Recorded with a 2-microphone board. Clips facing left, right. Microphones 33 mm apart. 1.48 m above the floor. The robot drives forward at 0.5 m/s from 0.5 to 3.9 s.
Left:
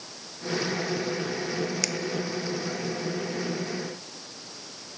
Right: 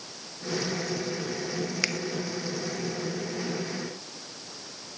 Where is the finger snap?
30° right (ahead or behind), 1.2 m.